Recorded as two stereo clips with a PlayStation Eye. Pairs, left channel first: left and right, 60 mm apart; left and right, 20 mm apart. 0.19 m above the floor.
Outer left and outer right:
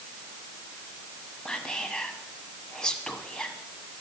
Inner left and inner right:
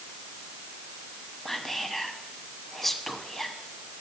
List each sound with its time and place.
1.4 s whispering: 15° left (ahead or behind), 1.0 m